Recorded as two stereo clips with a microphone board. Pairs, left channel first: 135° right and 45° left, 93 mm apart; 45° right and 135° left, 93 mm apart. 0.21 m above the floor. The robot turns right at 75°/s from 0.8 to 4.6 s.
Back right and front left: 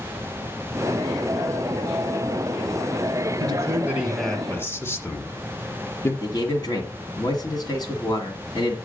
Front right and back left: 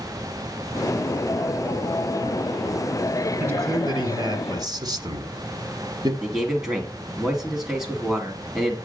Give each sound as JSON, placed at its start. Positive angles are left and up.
{"t": 3.4, "sound": "a man speaking", "azimuth_deg": 75, "distance_m": 1.8}
{"t": 6.2, "sound": "a man speaking", "azimuth_deg": -140, "distance_m": 2.0}